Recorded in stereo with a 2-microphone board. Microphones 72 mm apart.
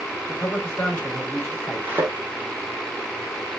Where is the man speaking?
30° left (ahead or behind), 3 m.